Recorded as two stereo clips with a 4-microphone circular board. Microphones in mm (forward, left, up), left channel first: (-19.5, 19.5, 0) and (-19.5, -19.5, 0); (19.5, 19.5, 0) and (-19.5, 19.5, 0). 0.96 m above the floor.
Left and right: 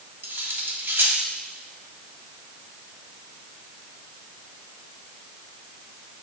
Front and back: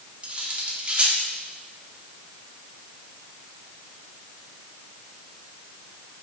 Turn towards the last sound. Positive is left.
turn(degrees=-120)